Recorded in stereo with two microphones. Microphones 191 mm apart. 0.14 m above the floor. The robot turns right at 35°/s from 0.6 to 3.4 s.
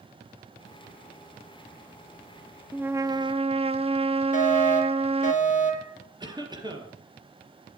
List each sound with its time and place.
2.7 s a trumpet: 5° right (ahead or behind), 0.6 m; by 5.3 s 30° right (ahead or behind), 0.6 m
4.3 s a fire alarm: 40° left (ahead or behind), 3 m
6.2 s a cough: 20° right (ahead or behind), 3.5 m